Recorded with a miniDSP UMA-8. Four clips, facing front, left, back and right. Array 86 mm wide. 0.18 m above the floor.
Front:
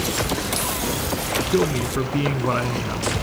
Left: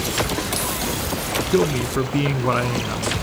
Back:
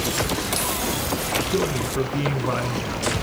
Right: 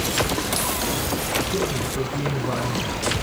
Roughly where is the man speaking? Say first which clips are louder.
Left 5 dB, front 4 dB; left.